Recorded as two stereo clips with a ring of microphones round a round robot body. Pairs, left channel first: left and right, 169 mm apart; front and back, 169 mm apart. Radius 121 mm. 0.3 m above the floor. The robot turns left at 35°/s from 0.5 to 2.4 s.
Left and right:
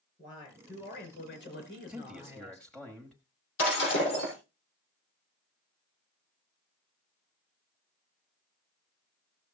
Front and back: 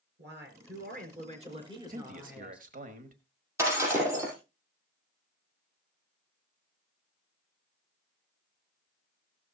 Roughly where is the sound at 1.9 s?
Behind.